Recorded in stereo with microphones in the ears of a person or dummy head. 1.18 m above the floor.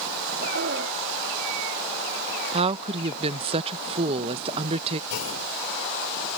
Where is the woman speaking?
35° right (ahead or behind).